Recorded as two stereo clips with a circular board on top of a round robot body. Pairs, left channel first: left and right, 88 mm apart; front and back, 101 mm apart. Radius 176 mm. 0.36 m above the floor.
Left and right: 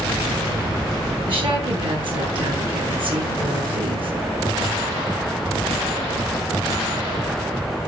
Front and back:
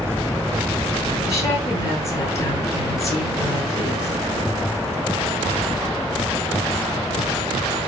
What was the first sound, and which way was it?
A woman speaking, 60° right.